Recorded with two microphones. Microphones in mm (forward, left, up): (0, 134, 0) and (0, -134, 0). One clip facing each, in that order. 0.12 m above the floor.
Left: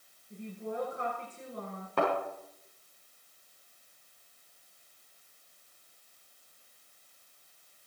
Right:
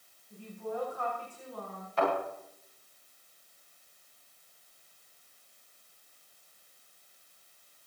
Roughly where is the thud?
Left.